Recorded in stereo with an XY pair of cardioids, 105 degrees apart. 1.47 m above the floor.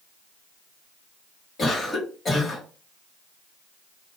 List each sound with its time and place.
1.6 s a cough: 45° left, 1.6 m